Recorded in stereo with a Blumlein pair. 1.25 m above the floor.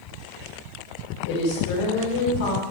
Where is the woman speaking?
55° left, 3.5 m.